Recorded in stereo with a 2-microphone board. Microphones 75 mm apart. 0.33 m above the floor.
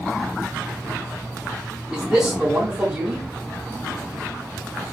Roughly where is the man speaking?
Centre.